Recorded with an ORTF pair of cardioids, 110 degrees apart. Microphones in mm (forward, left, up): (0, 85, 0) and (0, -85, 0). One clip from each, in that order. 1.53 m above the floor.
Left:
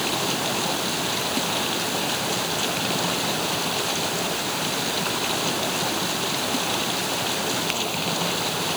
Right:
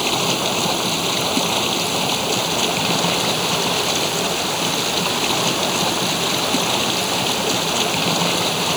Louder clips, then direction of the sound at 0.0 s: Right 5 dB; 40° right.